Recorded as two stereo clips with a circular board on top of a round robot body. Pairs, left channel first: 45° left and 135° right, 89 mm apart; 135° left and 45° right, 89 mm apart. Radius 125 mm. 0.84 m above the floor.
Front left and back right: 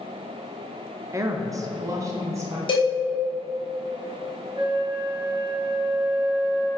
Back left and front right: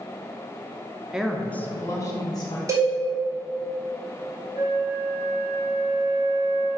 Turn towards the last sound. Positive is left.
turn(degrees=-100)